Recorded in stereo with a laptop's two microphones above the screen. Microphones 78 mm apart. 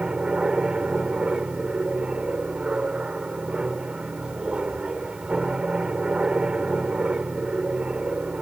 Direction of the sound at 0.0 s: 10° right (ahead or behind).